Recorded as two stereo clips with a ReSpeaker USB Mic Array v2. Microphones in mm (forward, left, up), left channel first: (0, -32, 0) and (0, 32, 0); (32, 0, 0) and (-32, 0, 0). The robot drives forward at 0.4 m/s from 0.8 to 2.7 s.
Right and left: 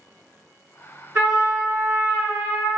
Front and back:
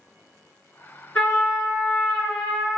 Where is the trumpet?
55° left, 1.5 m; by 2.8 s 95° left, 1.4 m.